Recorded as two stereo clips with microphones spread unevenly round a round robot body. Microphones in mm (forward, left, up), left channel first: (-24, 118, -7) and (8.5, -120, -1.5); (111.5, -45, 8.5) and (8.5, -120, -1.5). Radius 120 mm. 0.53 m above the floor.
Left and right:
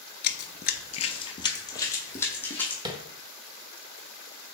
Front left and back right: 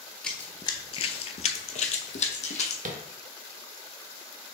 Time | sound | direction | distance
0.2 | running footsteps | 110° left | 0.5 m
2.9 | tapping | 155° right | 0.6 m